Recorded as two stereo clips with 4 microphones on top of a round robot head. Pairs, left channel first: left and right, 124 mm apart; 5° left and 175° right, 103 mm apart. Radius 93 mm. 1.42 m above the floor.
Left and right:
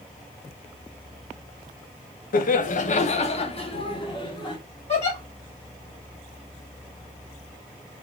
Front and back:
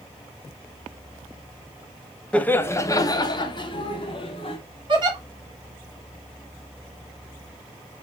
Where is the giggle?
145° left, 1.9 m.